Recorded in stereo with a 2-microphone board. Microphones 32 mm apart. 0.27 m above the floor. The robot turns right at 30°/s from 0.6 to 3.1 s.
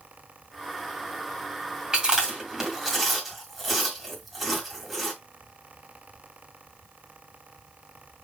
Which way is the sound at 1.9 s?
25° right (ahead or behind).